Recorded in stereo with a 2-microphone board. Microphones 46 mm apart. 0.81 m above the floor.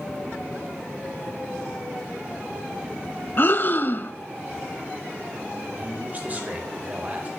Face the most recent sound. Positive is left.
turn(degrees=-35)  # may be behind; listen again after turning